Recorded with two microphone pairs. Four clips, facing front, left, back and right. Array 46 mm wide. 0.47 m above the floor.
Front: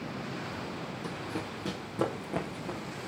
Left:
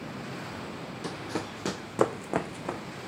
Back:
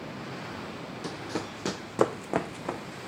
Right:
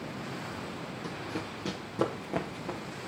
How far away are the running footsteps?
About 0.8 m.